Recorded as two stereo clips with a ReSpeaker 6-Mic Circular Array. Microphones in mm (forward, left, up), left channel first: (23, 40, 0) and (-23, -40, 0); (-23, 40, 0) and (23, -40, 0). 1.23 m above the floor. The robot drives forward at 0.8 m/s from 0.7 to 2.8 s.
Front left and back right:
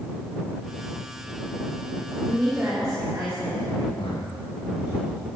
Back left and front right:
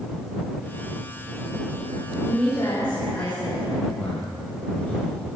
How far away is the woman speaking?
About 2.5 m.